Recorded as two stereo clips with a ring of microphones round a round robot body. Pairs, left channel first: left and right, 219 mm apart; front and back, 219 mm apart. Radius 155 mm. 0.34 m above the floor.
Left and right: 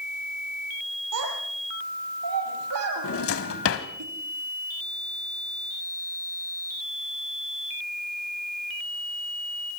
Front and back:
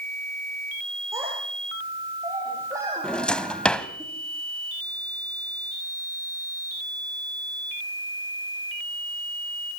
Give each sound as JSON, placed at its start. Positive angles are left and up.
{"t": 1.1, "sound": "a child speaking", "azimuth_deg": -100, "distance_m": 6.0}
{"t": 3.0, "sound": "a drawer", "azimuth_deg": 85, "distance_m": 1.5}